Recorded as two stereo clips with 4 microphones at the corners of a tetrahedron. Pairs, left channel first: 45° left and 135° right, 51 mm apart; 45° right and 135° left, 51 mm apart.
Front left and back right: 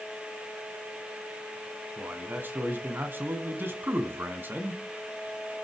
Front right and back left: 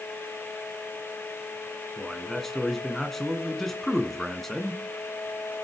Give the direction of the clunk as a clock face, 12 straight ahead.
No clunk in this recording.